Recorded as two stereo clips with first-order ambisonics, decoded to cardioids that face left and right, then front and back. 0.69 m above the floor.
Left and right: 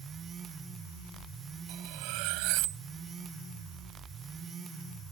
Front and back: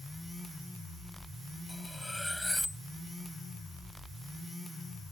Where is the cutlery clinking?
90° right.